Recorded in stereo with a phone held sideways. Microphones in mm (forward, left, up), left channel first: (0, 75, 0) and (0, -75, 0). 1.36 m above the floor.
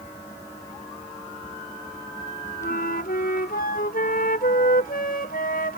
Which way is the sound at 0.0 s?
20° left (ahead or behind).